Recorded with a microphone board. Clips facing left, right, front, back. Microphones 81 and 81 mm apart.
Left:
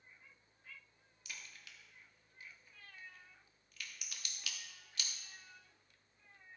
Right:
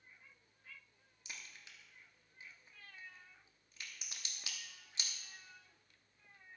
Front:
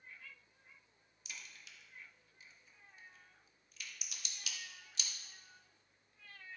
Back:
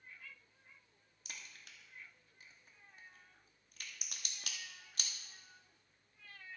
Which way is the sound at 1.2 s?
150° right.